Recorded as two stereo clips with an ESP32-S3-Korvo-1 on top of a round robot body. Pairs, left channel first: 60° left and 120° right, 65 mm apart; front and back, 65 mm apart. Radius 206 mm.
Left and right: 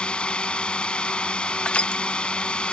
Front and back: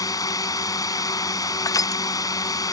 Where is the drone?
10° right.